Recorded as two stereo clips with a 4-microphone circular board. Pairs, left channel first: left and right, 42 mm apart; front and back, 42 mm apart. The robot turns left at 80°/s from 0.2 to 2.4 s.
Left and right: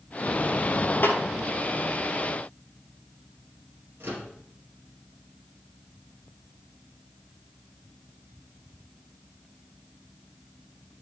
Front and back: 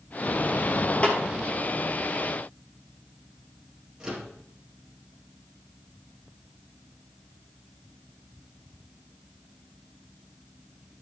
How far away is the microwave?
About 3 m.